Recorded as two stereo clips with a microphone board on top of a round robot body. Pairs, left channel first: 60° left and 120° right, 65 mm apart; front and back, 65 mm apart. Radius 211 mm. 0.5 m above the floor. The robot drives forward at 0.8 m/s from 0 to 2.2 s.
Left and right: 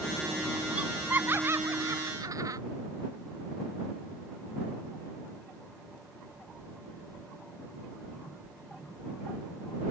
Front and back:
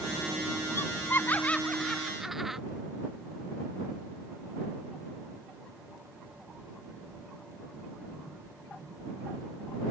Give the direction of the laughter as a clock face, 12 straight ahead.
2 o'clock.